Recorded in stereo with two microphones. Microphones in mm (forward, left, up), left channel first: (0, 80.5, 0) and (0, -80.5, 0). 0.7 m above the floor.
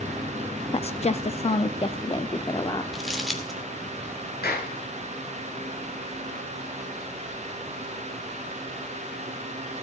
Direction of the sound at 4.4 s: 75° left (ahead or behind).